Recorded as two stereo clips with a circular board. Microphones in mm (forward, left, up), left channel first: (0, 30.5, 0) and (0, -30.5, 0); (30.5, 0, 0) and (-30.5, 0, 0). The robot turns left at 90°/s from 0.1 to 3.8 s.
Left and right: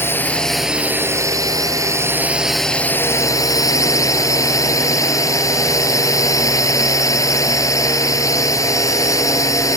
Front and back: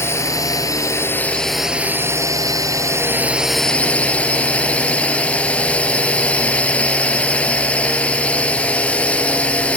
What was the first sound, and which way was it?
A drone, 40° left.